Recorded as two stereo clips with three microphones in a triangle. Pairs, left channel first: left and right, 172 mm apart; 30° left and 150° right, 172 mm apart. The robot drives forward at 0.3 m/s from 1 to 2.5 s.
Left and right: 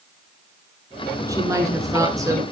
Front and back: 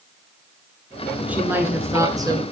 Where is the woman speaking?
85° right, 1.0 m; by 2.4 s 135° right, 1.1 m.